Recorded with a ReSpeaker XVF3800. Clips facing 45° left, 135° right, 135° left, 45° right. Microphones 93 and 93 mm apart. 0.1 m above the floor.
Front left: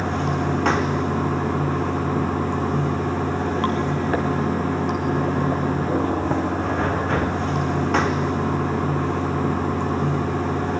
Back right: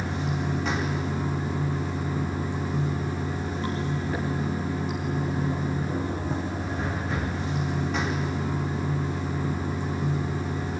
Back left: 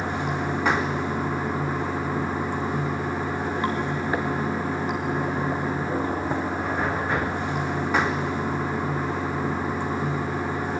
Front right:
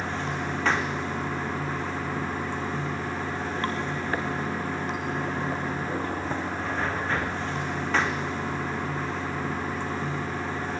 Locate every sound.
0.0 s running water: 60° left, 1.1 m